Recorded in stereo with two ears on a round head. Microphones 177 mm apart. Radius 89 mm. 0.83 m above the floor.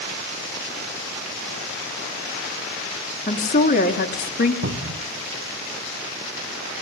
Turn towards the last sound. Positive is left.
turn(degrees=-70)  # may be behind; listen again after turning